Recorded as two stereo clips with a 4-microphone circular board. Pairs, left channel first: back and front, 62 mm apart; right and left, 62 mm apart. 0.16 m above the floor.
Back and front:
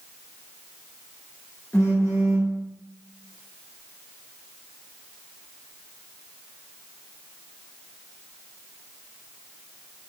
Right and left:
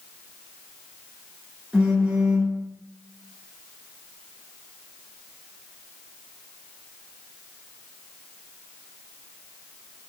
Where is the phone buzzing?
160° left, 1.0 m.